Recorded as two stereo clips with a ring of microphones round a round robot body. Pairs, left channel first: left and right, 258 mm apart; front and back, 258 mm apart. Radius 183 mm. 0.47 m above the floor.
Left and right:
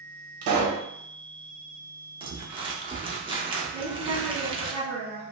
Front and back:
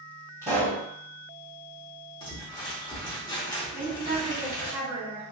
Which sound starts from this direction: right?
A pop, at 0.4 s.